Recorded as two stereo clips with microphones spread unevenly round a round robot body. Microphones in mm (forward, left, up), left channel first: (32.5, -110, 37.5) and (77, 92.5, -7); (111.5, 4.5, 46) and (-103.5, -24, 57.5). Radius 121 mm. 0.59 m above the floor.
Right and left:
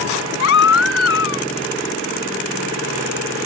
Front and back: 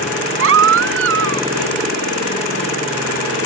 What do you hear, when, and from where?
0.4 s a baby crying: 145° right